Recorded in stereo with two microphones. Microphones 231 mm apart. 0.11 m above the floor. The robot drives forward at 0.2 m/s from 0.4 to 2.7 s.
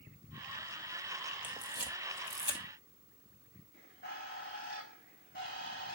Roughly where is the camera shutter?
Left.